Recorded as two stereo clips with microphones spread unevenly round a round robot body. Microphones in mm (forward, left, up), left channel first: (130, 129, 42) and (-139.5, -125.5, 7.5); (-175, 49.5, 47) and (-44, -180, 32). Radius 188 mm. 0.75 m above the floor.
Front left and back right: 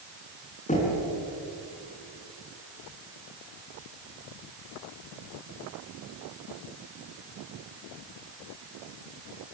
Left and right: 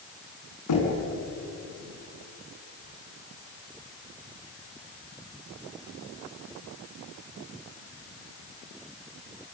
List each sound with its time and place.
0.7 s knocking: 115° left, 6.5 m